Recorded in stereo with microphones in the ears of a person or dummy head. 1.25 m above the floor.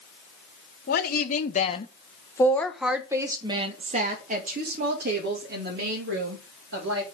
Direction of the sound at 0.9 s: 55° left (ahead or behind).